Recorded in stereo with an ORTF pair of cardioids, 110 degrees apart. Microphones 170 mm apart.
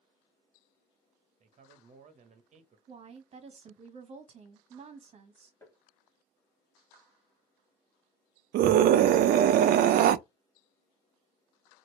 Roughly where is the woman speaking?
Ahead right.